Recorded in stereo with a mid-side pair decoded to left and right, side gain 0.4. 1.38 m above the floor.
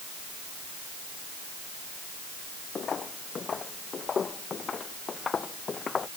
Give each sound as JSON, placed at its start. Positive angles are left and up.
{"t": 2.8, "sound": "footsteps", "azimuth_deg": 55}